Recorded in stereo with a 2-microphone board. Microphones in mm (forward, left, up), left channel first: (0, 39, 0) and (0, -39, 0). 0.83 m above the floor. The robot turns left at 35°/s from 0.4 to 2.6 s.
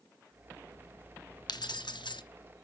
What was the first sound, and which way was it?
Keys jangling, 65° left (ahead or behind).